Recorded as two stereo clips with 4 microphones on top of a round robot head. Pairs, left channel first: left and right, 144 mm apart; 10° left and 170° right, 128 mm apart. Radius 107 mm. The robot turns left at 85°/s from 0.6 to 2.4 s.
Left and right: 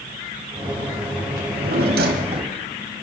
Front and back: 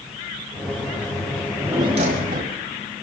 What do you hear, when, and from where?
1.4 s a drawer: 65° right, 2.5 m; by 2.6 s 150° right, 2.5 m